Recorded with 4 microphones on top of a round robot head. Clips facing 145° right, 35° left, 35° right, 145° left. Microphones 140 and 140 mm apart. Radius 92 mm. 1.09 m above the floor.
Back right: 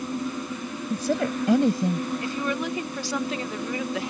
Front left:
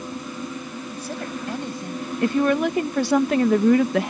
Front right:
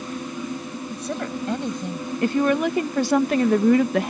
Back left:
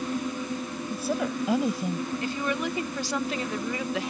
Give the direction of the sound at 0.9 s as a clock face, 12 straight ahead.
4 o'clock.